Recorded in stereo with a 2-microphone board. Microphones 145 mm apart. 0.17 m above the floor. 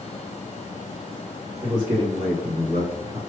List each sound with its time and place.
1.6 s a man speaking: 40° right (ahead or behind), 2 m; by 3.2 s 45° right (ahead or behind), 2.5 m